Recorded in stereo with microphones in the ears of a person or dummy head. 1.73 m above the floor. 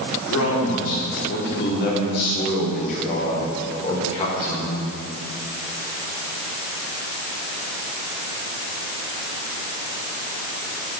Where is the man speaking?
80° left, 4 m; by 4.8 s 25° left (ahead or behind), 5.5 m.